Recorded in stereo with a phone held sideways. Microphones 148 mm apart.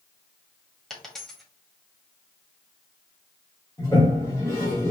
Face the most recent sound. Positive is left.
turn(degrees=20)  # may be behind; listen again after turning